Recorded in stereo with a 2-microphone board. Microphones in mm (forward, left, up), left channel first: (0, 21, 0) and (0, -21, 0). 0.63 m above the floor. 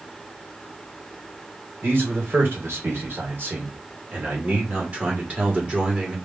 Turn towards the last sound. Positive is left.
turn(degrees=-25)  # may be behind; listen again after turning